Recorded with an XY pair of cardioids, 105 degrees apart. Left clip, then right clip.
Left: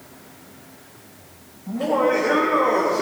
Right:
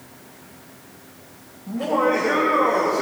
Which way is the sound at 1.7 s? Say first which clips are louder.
Even; 10° left.